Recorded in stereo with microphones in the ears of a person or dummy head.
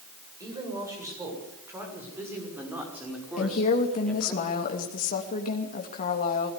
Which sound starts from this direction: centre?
A woman speaking, at 0.4 s.